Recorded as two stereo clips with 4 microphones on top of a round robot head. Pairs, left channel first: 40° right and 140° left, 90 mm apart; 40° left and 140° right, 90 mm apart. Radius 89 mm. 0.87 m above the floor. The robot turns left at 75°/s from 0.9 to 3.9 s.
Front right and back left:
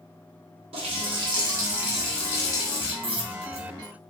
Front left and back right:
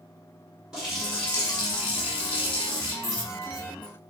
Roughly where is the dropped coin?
Behind left.